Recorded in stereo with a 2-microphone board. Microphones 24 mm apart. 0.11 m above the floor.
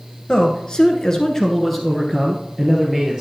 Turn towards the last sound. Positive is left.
turn(degrees=-15)  # may be behind; listen again after turning